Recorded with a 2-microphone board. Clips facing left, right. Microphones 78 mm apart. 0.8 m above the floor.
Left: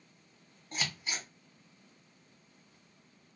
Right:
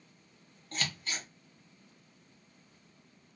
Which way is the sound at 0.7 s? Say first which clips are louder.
Even; 15° left (ahead or behind).